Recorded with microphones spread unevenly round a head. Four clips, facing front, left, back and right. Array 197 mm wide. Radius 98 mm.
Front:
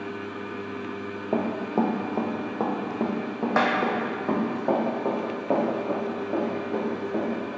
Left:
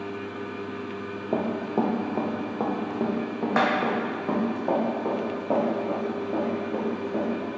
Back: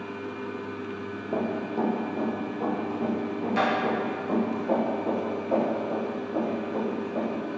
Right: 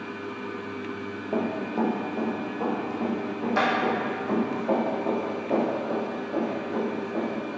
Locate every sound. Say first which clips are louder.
1.3 s running footsteps: left 1 dB, front 3 dB; 35° left, 1.2 m; by 7.4 s 25° left, 4 m